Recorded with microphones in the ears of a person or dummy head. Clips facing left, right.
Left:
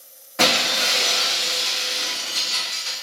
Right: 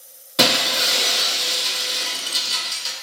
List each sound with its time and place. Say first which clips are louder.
0.4 s breaking glass: right 1 dB; 50° right (ahead or behind), 0.8 m